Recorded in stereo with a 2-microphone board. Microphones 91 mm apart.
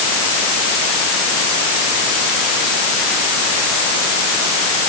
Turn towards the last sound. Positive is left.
No sound to turn to.